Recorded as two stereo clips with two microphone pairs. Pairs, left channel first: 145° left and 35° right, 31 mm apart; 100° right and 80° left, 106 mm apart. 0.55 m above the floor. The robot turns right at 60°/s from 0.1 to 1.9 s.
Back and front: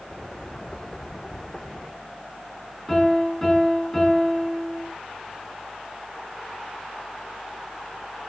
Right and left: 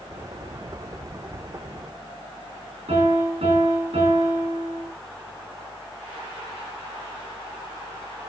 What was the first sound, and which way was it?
A piano, 65° left.